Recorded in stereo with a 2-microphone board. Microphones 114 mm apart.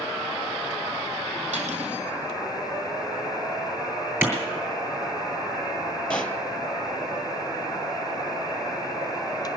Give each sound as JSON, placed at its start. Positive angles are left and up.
{"t": 1.5, "sound": "cutlery clinking", "side_deg": -75, "distance_m": 3.0}
{"t": 4.2, "sound": "a clap", "side_deg": -20, "distance_m": 3.0}
{"t": 6.1, "sound": "a pop", "side_deg": 10, "distance_m": 0.8}